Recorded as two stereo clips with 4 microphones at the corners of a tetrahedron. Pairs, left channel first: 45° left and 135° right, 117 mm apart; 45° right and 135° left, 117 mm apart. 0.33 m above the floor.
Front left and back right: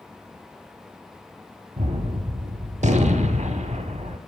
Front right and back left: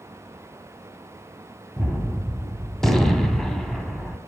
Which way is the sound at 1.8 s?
130° right.